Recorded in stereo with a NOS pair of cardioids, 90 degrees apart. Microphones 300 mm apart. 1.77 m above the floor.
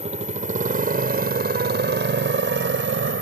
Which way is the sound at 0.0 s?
25° right.